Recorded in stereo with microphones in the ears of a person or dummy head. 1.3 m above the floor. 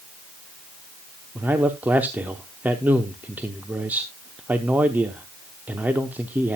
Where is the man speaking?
5° right (ahead or behind), 0.8 m.